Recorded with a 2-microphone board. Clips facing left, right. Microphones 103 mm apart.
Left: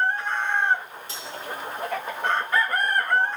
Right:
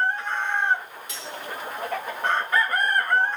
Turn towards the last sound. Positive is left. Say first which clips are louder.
# right 1 dB
turn(degrees=35)  # may be behind; listen again after turning